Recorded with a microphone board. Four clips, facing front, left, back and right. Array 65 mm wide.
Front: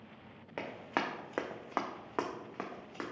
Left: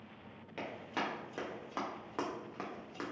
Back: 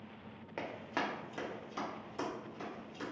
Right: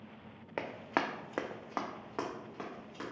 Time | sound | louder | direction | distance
0.6 | running footsteps | right 5 dB, front 2 dB | 80° right | 0.6 m